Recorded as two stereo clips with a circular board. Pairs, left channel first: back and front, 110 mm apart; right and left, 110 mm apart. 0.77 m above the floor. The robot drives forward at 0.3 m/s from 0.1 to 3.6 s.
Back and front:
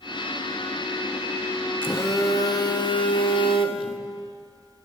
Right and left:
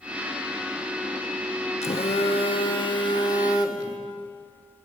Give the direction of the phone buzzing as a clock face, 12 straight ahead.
4 o'clock.